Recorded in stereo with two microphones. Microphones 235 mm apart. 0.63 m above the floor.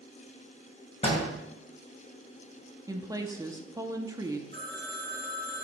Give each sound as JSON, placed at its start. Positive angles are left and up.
{"t": 1.0, "sound": "a door slam", "side_deg": 25, "distance_m": 2.0}
{"t": 2.9, "sound": "a woman speaking", "side_deg": -15, "distance_m": 0.6}
{"t": 4.5, "sound": "a phone ringing", "side_deg": -45, "distance_m": 1.4}